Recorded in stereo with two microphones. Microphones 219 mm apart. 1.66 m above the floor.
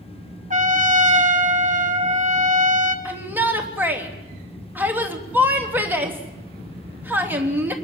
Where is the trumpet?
35° right (ahead or behind), 1.7 m.